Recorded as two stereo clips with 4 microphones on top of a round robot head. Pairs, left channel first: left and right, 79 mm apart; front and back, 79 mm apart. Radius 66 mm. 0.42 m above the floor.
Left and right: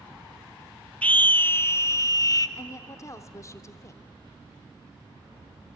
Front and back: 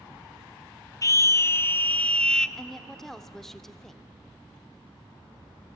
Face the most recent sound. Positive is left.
turn(degrees=85)